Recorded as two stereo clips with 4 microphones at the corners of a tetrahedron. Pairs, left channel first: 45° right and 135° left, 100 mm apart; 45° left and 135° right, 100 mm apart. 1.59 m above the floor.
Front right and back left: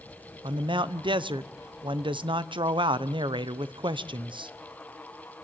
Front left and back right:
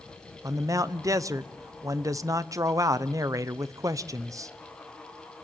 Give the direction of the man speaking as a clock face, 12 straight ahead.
6 o'clock.